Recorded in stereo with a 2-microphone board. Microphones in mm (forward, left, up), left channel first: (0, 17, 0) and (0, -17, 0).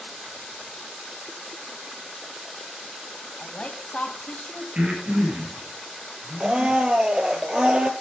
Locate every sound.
3.4 s a woman speaking: 40° left (ahead or behind), 1.6 m
4.8 s breathing: 45° right (ahead or behind), 5.5 m
6.4 s a blender: 25° right (ahead or behind), 0.9 m